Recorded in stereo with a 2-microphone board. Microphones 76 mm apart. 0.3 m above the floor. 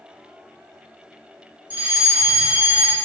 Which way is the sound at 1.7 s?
25° right (ahead or behind).